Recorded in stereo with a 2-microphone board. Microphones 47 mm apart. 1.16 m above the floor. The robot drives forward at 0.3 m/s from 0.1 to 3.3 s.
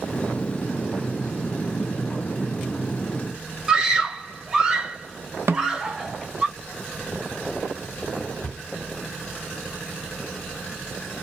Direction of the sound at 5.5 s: 65° right (ahead or behind).